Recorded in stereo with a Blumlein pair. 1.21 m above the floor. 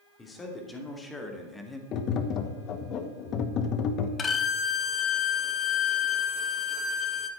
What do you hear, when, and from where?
0.2 s a man speaking: 15° left, 3 m; by 1.8 s 10° left, 1.8 m
1.9 s tapping: 35° left, 1.1 m
4.2 s a violin: 20° left, 1.2 m